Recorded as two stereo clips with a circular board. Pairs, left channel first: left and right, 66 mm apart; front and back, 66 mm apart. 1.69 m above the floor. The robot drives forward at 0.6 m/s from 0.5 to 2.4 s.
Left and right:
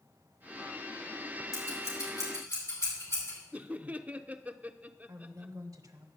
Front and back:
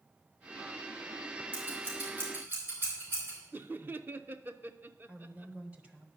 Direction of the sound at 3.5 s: 145° right.